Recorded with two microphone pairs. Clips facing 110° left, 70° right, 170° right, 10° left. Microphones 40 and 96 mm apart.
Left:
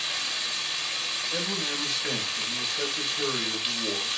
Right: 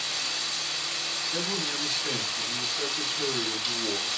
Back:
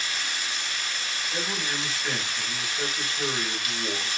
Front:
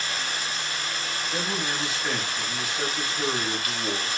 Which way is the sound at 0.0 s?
55° left.